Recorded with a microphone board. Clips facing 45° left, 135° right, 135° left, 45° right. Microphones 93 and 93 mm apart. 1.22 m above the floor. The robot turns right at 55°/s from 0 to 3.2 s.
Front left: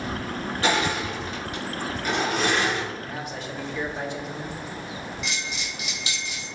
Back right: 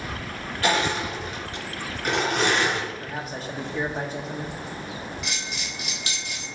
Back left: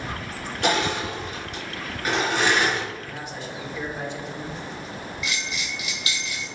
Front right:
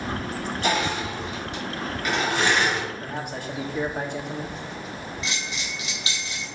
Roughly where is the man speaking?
Right.